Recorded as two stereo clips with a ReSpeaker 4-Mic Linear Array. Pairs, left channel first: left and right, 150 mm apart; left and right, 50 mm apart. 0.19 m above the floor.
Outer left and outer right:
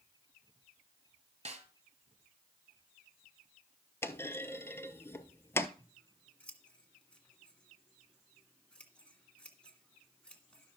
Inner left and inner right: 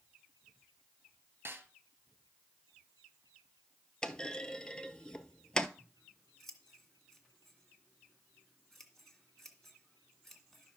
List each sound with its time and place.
1.4 s a snare drum: 45° right (ahead or behind), 1.2 m
4.0 s a clunk: 15° left (ahead or behind), 0.6 m
5.8 s scissors: 10° left (ahead or behind), 1.8 m